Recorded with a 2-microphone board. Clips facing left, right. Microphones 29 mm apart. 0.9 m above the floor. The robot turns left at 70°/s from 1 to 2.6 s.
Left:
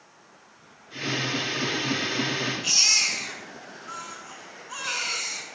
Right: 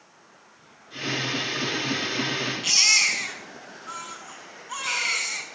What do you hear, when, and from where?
2.6 s a baby crying: 65° right (ahead or behind), 6.5 m